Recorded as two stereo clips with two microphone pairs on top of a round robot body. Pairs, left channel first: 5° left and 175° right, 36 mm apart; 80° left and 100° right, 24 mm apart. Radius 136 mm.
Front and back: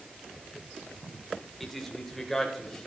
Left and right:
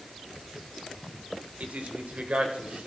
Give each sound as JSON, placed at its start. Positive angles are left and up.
{"t": 1.6, "sound": "a man speaking", "azimuth_deg": -80, "distance_m": 3.5}